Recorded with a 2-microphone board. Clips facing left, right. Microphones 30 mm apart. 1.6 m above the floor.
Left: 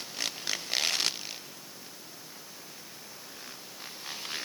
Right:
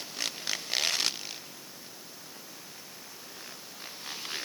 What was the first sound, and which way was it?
Only background noise.